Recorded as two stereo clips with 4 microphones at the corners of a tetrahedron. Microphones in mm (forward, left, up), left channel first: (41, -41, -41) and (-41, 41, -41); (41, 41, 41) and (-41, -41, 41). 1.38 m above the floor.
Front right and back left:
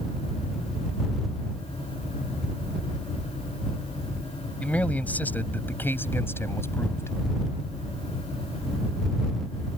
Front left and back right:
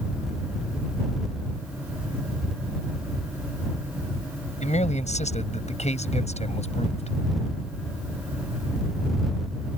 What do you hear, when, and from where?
4.6 s a man speaking: 35° left; by 7.2 s 20° left